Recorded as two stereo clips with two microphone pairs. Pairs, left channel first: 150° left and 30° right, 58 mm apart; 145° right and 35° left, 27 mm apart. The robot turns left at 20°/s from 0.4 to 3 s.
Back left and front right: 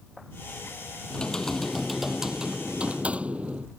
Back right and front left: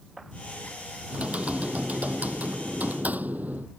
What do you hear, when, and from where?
1.1 s typing on a keyboard: 80° left; by 3.7 s 40° left